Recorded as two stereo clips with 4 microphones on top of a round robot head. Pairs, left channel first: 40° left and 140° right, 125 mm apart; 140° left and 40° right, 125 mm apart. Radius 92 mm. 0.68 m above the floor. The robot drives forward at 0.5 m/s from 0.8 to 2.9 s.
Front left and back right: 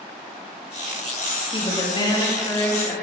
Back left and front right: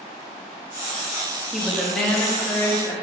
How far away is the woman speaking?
About 1.4 m.